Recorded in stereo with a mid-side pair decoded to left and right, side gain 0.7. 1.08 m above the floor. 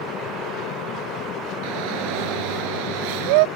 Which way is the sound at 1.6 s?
70° right.